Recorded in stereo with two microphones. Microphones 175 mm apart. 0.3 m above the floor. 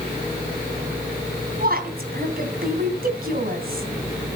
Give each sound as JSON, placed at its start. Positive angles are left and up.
{"t": 1.6, "sound": "a woman speaking", "side_deg": -60, "distance_m": 3.0}